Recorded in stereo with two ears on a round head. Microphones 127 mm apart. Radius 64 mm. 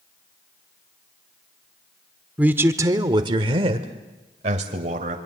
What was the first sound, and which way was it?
A man speaking, 10° right (ahead or behind).